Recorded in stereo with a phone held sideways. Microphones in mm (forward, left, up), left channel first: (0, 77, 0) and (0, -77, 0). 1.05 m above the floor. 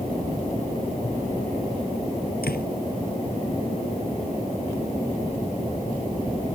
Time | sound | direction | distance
2.4 | a door slam | 80° left | ?